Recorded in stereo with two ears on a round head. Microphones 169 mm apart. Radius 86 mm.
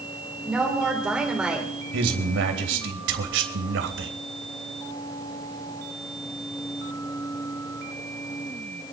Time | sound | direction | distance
0.5 | a woman speaking | 5° right (ahead or behind) | 2.5 m
1.9 | a man speaking | 75° right (ahead or behind) | 3 m